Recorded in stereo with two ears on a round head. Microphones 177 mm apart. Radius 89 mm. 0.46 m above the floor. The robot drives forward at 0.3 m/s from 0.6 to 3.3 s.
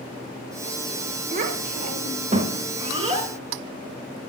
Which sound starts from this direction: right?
A child speaking, at 1.3 s.